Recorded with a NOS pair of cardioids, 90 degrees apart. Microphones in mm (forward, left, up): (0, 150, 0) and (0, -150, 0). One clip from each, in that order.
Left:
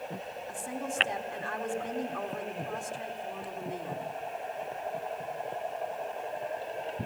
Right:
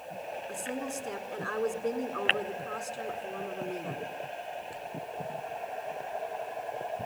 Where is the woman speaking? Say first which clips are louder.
Left 2 dB; 10° left, 4 m.